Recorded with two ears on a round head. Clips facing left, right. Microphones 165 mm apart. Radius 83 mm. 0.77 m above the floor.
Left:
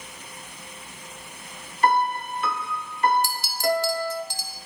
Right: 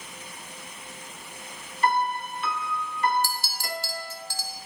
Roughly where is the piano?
Left.